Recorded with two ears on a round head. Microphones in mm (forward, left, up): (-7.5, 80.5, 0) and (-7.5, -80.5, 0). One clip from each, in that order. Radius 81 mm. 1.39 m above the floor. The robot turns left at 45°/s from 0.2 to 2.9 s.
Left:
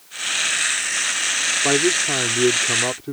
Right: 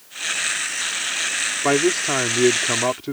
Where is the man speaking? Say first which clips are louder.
Right 2 dB; 30° right; by 3.1 s 90° right.